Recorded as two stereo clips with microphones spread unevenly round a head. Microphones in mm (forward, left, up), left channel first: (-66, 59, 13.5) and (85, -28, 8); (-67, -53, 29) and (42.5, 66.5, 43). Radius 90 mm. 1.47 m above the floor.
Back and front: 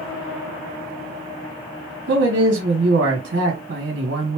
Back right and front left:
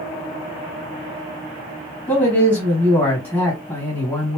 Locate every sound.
2.1 s a man speaking: 60° right, 1.5 m